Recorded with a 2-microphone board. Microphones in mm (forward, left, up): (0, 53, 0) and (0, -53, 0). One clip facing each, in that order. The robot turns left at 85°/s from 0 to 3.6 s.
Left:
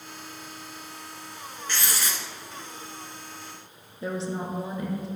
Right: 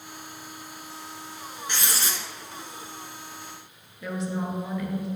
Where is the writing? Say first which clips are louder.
Even; 30° right, 1.4 m; by 2.2 s 75° right, 1.4 m.